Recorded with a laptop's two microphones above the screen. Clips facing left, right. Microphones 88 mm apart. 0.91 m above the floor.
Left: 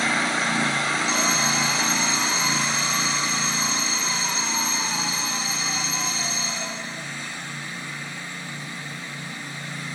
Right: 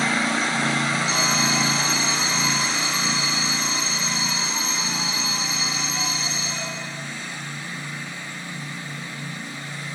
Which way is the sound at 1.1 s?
40° left (ahead or behind).